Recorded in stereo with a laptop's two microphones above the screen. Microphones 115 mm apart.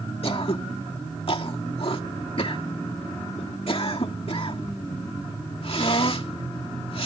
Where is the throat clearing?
55° left (ahead or behind).